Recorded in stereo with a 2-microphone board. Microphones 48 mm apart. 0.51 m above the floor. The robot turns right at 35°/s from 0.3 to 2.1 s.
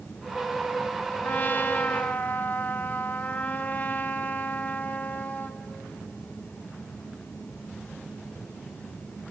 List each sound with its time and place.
1.2 s a trumpet: 90° left, 1.1 m; by 5.6 s 120° left, 1.1 m